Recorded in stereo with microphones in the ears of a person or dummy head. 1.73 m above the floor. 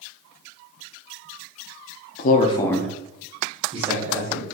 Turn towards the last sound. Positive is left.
turn(degrees=-40)  # may be behind; listen again after turning